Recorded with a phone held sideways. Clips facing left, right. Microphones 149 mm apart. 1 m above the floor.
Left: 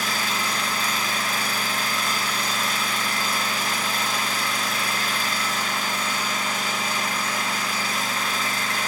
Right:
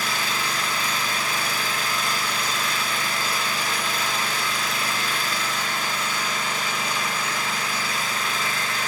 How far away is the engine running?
About 1.5 m.